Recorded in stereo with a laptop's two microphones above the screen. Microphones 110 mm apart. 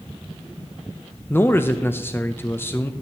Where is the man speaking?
20° left (ahead or behind), 0.5 m.